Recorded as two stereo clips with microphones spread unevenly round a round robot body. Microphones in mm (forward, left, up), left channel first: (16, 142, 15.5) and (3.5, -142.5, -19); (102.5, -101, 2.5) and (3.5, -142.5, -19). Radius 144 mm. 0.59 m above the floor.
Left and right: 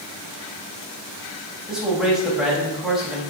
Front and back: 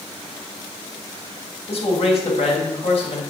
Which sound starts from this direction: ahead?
A man speaking, at 1.7 s.